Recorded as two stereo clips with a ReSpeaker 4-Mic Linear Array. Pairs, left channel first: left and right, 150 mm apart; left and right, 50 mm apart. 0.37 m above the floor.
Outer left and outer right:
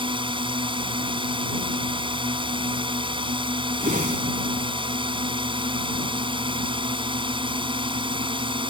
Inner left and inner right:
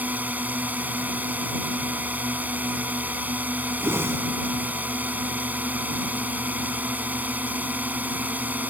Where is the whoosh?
75° right (ahead or behind).